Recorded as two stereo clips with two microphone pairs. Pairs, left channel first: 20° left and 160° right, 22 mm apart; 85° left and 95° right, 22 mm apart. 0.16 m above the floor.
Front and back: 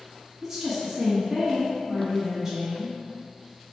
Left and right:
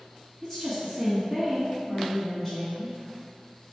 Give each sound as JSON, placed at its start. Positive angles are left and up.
{"t": 0.4, "sound": "a woman speaking", "azimuth_deg": 135, "distance_m": 1.8}